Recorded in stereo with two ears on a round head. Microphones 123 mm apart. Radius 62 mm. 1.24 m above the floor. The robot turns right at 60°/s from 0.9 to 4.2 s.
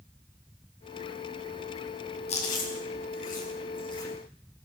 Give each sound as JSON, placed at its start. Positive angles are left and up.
{"t": 2.3, "sound": "chewing", "side_deg": 45, "distance_m": 7.0}